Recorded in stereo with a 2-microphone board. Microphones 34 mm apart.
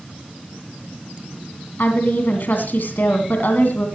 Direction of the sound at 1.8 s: 60° left (ahead or behind).